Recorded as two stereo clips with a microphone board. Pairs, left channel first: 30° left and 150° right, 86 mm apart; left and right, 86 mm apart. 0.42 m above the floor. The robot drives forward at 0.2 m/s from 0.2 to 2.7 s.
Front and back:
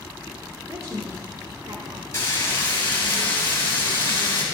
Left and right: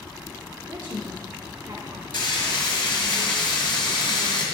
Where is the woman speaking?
135° right, 1.4 m; by 2.0 s 145° right, 1.5 m.